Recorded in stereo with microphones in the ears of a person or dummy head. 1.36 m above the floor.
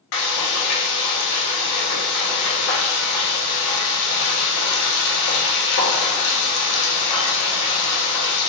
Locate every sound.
0.1 s frying: 60° left (ahead or behind), 0.8 m